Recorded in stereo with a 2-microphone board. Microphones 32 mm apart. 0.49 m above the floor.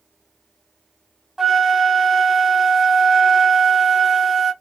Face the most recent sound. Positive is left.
turn(degrees=-5)  # may be behind; listen again after turning